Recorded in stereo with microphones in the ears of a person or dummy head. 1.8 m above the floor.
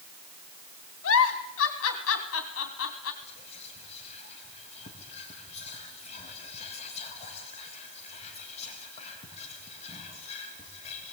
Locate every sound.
1.0 s a giggle: 80° left, 3.5 m
3.2 s whispering: 35° left (ahead or behind), 3.5 m